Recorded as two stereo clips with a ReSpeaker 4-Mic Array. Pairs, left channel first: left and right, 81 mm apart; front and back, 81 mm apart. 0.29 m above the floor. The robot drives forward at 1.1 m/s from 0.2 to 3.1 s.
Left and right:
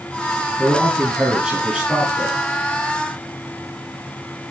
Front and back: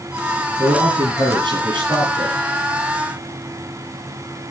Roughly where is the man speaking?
Behind.